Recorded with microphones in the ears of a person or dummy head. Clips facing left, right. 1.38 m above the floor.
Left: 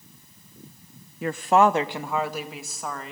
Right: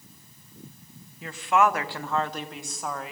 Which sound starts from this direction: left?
A woman speaking, at 1.2 s.